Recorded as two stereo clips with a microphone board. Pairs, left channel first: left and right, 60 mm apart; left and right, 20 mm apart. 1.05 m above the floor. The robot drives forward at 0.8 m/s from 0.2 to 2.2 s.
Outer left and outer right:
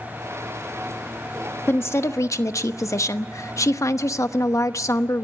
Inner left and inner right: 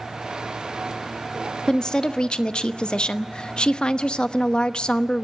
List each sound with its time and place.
1.7 s a woman speaking: 40° left (ahead or behind), 1.2 m; by 5.2 s 55° left (ahead or behind), 0.9 m